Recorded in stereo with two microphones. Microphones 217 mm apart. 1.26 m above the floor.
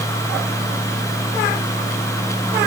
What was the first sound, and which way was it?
Only background noise.